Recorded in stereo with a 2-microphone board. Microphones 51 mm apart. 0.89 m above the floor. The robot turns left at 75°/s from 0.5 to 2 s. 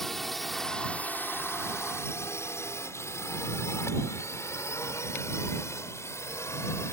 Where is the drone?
5° left (ahead or behind); by 6.9 s 65° left (ahead or behind).